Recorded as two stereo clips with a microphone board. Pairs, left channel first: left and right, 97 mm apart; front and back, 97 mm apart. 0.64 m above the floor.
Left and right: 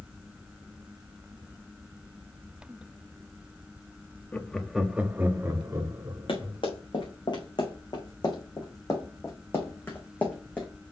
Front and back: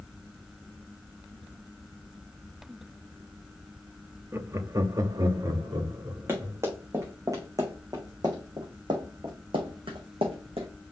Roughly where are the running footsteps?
Behind left.